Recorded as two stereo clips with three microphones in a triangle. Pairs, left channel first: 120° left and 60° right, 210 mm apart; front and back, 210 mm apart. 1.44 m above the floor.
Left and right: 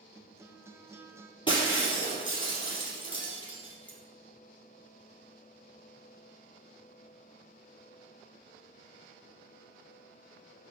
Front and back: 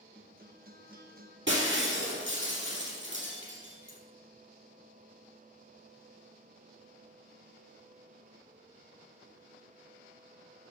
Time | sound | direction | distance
0.1 | a guitar | 140° right | 0.8 m
1.5 | breaking glass | 175° right | 3 m